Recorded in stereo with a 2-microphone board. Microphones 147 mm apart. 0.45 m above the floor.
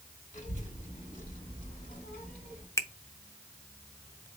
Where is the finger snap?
20° left (ahead or behind), 0.5 m.